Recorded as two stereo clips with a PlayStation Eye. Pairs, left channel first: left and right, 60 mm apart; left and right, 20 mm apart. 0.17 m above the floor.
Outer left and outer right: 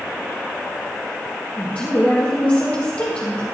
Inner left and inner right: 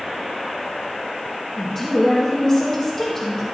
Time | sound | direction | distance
1.6 | a woman speaking | 35° left (ahead or behind) | 3.5 m